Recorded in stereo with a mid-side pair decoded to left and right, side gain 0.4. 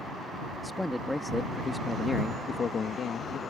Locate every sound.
0.6 s a man speaking: 5° left; by 3.4 s 65° left